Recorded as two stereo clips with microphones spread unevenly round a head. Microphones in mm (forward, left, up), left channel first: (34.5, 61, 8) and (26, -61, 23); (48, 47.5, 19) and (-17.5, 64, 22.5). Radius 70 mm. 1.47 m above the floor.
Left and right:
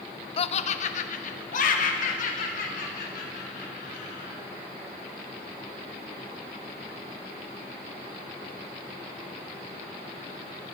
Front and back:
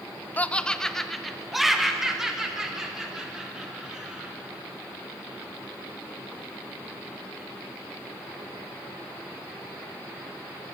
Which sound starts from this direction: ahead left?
Laughter, at 0.4 s.